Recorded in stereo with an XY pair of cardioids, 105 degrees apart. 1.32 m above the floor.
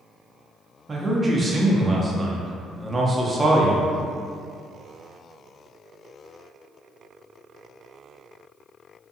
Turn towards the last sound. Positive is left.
turn(degrees=-25)